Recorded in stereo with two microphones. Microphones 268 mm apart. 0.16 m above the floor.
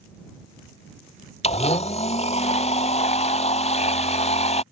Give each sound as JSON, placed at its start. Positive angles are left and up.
{"t": 1.4, "sound": "a blender", "side_deg": 25}